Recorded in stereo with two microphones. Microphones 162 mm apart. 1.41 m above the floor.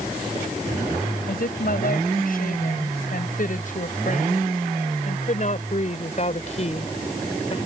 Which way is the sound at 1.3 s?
65° left (ahead or behind).